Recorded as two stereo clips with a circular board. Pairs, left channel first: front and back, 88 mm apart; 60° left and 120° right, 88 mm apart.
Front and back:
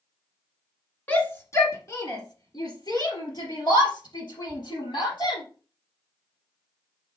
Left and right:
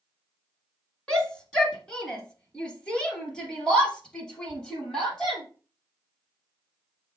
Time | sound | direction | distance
1.1 | a shout | 5° left | 1.7 m